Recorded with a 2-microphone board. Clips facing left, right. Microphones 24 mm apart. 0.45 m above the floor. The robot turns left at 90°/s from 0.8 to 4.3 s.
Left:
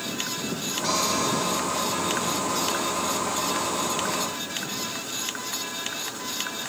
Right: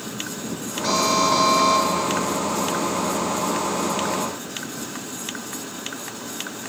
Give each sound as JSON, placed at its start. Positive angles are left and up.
{"t": 0.8, "sound": "an alarm", "azimuth_deg": -5}